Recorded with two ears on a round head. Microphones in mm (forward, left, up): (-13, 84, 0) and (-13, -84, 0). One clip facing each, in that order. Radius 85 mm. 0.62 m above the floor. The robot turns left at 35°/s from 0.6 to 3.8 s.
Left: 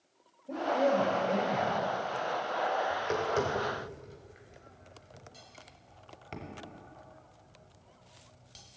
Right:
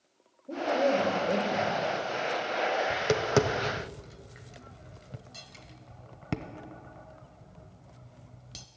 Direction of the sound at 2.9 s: 75° right (ahead or behind).